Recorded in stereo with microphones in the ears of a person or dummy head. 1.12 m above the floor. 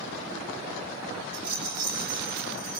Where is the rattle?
25° right (ahead or behind), 2.5 m.